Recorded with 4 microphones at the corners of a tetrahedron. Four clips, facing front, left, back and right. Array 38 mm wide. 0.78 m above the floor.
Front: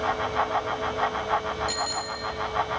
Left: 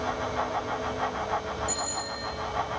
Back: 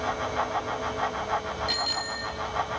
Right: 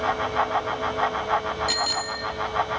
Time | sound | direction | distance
1.7 | a bicycle bell | 110° right | 5 m